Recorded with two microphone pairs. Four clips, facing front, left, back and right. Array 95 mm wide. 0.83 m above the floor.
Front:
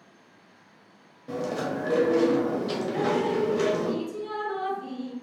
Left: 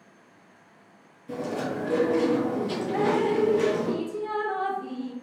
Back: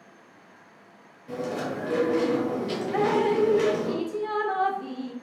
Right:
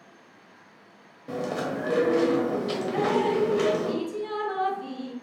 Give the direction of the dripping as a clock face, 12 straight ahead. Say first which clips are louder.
Left 1 dB, back 4 dB; 6 o'clock.